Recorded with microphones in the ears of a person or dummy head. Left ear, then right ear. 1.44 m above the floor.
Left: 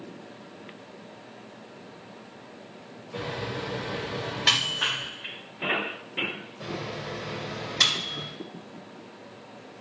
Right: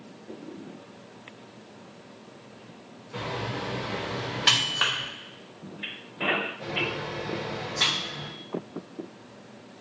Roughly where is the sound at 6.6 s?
Left.